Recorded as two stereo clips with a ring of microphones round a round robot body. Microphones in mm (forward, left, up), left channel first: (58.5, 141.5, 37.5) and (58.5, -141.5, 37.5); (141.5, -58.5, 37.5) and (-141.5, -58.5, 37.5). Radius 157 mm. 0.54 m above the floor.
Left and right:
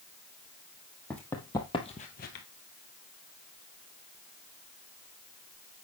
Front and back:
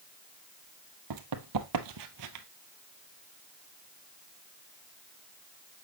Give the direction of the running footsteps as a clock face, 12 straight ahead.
6 o'clock.